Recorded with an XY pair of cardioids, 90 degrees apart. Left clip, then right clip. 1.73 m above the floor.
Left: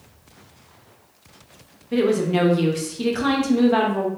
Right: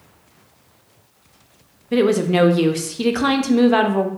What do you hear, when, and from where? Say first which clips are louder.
1.9 s a woman speaking: right 3 dB; 40° right, 0.5 m